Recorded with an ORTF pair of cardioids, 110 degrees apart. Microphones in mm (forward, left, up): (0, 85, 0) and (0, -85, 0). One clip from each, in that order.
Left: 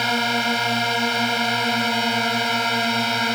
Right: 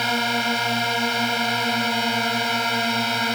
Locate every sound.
0.0 s a drone: 25° left